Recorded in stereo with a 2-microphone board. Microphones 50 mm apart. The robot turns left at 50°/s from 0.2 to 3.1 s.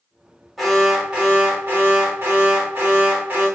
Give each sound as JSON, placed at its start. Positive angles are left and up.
{"t": 0.6, "sound": "an alarm", "azimuth_deg": 5, "distance_m": 1.6}